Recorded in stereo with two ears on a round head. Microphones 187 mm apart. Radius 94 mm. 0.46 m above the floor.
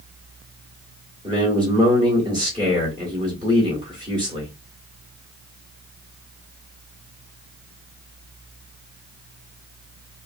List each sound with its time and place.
1.2 s a man speaking: 20° right (ahead or behind), 1.3 m